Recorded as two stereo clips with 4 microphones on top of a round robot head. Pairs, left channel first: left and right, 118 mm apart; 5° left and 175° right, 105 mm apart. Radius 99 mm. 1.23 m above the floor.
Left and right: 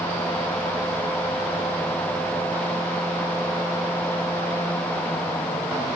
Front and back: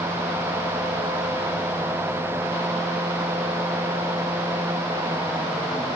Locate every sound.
Only background noise.